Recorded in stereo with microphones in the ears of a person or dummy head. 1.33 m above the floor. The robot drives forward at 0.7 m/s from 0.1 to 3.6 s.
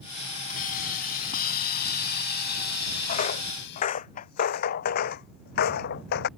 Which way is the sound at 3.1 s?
40° left (ahead or behind).